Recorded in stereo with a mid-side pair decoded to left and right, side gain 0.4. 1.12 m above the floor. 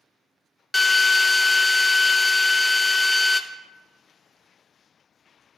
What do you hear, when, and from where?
0.7 s a drill: 20° left, 0.7 m